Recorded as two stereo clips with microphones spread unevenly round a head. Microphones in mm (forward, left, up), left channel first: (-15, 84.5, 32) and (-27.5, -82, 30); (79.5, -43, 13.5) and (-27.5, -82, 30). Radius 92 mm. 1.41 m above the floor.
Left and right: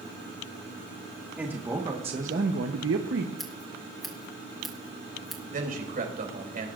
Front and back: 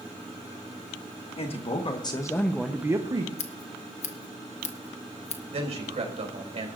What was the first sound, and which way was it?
A man speaking, 10° right.